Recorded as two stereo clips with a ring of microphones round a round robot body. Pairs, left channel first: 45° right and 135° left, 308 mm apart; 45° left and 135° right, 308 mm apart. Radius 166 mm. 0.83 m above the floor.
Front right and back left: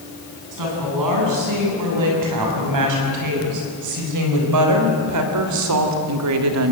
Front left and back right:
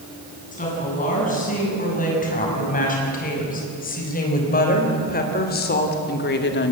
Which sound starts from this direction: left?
A woman speaking, at 0.5 s.